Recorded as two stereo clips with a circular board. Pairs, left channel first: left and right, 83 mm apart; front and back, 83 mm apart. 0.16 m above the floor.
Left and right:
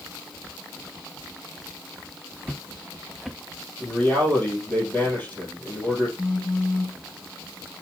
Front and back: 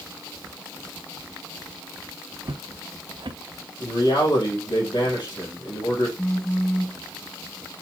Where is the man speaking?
20° left, 4 m.